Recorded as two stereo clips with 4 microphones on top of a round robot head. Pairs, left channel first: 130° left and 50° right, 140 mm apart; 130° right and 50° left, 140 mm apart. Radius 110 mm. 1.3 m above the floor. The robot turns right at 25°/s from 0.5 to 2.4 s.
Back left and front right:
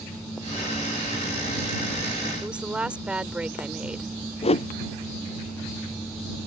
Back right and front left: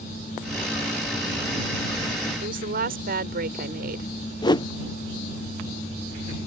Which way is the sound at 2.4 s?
30° left.